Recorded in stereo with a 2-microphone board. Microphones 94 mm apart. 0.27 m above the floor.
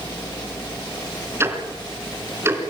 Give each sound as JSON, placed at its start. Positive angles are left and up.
{"t": 1.4, "sound": "ticking", "side_deg": -25, "distance_m": 3.0}